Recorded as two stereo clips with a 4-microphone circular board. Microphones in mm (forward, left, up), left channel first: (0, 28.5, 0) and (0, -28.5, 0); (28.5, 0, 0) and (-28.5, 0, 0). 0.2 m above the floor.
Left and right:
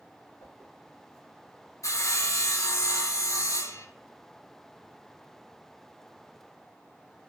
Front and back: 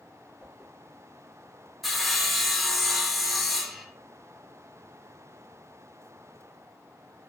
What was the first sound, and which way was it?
A whoosh, 70° left.